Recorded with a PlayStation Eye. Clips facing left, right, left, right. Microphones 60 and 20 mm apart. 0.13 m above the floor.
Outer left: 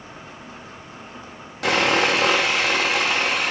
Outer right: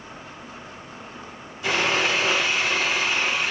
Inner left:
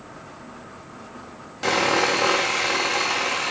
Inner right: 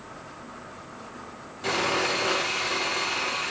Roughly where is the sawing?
Left.